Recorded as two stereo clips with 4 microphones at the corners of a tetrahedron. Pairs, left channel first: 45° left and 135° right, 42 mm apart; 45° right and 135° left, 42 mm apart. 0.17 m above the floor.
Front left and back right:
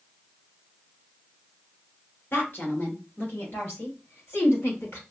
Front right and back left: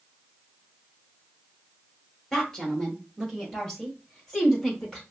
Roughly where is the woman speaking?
Ahead left.